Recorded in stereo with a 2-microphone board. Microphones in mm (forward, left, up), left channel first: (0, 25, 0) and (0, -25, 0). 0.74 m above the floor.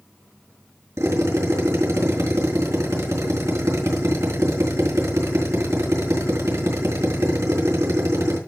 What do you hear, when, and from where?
1.0 s a drill: 85° right, 4 m